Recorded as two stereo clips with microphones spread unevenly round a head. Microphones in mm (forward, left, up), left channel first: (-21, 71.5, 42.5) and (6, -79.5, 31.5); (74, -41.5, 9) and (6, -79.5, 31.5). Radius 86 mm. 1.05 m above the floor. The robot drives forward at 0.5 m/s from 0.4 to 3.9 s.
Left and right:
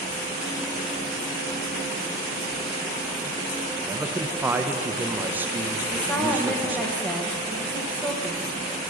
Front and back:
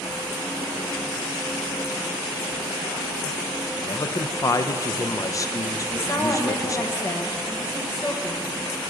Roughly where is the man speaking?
Ahead.